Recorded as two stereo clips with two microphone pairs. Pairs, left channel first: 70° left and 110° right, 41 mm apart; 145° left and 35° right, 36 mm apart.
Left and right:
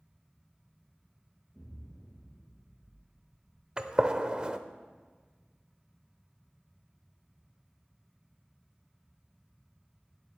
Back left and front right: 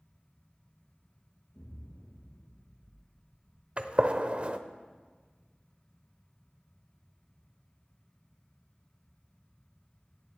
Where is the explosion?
160° left, 5.5 m.